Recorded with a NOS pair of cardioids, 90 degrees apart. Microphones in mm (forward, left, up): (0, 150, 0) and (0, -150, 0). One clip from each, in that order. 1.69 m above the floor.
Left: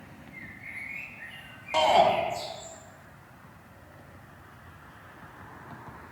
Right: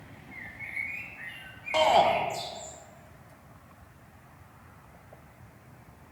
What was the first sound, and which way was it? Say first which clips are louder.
A bird: right 4 dB; 65° right.